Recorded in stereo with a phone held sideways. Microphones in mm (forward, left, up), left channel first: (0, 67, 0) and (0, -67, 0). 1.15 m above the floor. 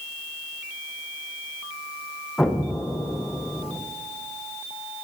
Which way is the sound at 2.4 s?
5° left (ahead or behind).